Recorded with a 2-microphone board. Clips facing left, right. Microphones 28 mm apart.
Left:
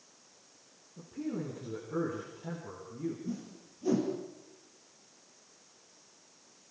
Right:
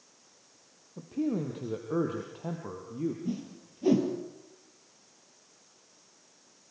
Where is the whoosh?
45° right (ahead or behind), 4 m.